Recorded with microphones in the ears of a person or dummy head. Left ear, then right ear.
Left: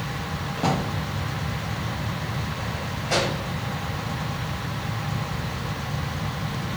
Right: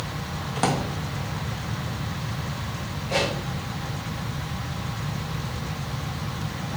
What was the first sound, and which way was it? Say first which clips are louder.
A drawer: right 1 dB; 45° right (ahead or behind).